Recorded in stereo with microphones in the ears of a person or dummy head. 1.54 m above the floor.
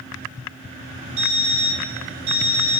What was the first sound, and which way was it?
An alarm clock, 30° right (ahead or behind).